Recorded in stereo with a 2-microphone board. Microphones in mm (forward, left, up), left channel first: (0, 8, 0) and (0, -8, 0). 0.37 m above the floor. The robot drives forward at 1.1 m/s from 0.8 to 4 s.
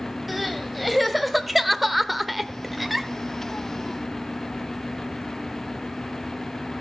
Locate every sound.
0.3 s crying: 5° right (ahead or behind), 1.7 m